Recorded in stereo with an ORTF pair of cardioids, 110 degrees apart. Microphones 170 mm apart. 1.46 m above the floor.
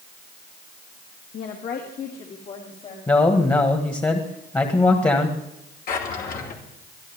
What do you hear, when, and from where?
1.3 s a woman speaking: 70° left, 2.0 m; by 3.0 s 45° left, 3 m
3.1 s a man speaking: 20° left, 1.7 m
5.9 s a drawer: 60° left, 2.5 m